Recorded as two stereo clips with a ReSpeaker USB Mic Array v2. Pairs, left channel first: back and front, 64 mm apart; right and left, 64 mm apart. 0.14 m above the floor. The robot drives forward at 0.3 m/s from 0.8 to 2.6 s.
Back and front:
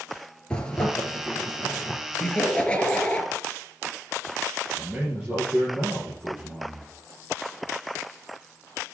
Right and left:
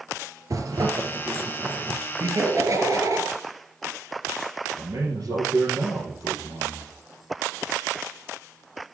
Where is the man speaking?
70° left, 3.5 m.